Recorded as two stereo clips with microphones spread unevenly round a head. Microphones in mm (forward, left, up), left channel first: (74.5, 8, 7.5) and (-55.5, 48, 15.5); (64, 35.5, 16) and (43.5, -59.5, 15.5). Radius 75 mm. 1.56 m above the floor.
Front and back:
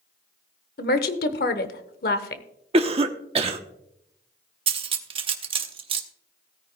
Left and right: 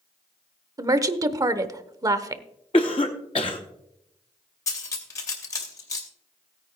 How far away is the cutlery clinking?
About 0.8 m.